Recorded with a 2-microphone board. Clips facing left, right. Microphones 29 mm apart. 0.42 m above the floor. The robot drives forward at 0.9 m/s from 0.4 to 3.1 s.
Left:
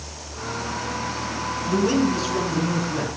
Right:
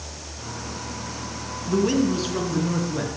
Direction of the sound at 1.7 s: 10° right (ahead or behind).